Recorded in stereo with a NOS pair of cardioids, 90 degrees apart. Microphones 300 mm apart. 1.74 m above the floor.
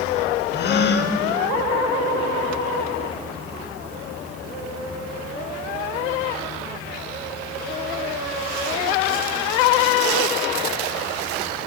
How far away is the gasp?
About 0.6 m.